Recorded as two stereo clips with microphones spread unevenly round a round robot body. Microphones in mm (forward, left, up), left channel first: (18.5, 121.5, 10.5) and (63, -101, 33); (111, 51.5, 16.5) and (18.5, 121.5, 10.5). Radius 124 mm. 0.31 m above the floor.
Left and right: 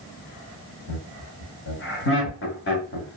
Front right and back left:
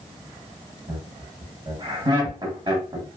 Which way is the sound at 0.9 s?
105° left.